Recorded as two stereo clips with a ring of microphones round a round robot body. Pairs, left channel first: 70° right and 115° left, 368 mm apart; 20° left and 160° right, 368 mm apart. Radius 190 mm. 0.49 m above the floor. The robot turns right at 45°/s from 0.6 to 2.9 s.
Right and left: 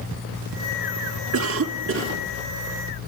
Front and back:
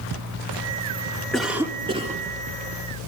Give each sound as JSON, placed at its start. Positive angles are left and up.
{"t": 1.3, "sound": "a cough", "azimuth_deg": 110, "distance_m": 1.2}